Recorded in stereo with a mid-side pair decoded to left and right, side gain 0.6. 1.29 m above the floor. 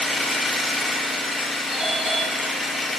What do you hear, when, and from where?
0.0 s an engine running: 15° left, 0.7 m
1.7 s a doorbell: 25° right, 2.5 m